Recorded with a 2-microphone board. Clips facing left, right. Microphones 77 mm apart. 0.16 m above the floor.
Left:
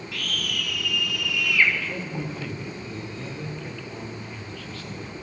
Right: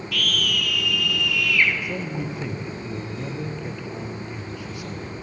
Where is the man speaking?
15° right (ahead or behind), 3.5 m.